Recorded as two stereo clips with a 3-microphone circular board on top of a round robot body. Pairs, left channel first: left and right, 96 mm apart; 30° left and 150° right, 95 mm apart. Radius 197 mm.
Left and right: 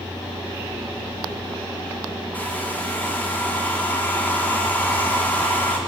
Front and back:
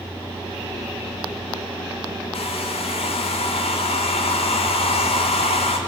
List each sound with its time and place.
2.3 s a hair dryer: 15° left, 1.3 m